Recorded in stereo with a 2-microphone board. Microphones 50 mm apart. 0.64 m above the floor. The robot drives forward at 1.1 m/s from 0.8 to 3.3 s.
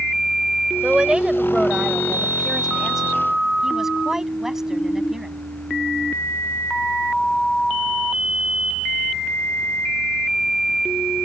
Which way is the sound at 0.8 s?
20° right (ahead or behind).